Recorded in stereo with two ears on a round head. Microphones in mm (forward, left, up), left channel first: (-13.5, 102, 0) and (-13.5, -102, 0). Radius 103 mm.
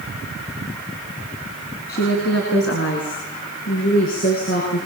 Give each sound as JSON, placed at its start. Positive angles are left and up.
{"t": 1.9, "sound": "a woman speaking", "side_deg": 45, "distance_m": 5.0}